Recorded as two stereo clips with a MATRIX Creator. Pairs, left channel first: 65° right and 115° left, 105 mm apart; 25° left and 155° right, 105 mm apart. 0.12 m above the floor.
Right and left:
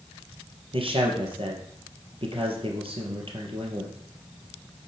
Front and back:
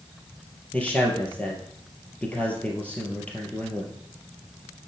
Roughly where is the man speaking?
Left.